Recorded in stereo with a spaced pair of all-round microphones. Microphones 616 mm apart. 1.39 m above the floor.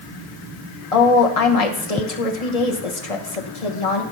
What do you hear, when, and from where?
0.9 s a woman speaking: 70° left (ahead or behind), 1.1 m